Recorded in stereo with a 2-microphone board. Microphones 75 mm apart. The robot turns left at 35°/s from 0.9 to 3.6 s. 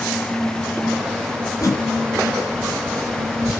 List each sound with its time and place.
1.6 s a whoosh: 40° left (ahead or behind), 0.7 m